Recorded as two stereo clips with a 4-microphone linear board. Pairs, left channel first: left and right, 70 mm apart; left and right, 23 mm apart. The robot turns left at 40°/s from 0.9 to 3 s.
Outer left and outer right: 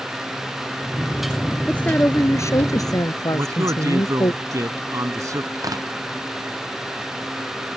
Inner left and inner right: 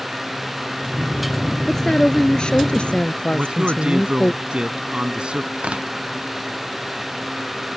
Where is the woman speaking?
165° left; by 4.3 s 110° left.